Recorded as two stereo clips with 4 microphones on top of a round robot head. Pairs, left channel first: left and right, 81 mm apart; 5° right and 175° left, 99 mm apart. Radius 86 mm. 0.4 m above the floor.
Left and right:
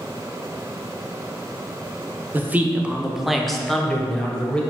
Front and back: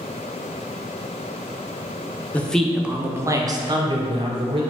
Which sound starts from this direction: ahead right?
A man speaking, at 2.3 s.